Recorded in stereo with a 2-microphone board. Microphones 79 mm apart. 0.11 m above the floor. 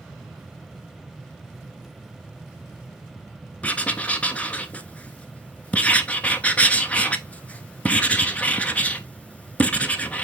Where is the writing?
15° left (ahead or behind), 0.9 m.